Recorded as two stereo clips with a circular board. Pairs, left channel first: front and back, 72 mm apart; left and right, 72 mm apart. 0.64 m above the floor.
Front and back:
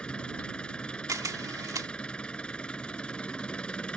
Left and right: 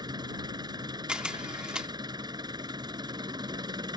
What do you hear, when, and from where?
0.0 s an engine running: 75° right
1.1 s a camera shutter: 165° right